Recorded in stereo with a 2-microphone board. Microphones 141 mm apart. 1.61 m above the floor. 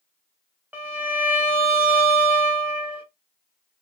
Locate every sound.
0.7 s a violin: 10° right (ahead or behind), 0.9 m